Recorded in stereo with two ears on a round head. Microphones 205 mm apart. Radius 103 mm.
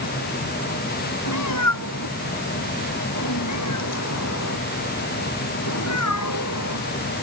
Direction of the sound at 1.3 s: 85° left.